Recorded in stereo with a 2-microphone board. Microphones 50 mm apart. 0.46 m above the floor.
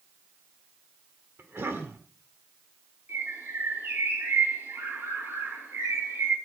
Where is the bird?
70° right (ahead or behind), 10 m.